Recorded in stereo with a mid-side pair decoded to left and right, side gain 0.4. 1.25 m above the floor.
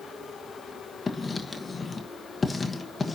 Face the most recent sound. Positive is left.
turn(degrees=30)